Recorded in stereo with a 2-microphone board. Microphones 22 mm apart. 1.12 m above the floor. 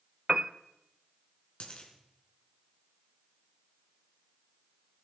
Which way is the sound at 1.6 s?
55° left (ahead or behind).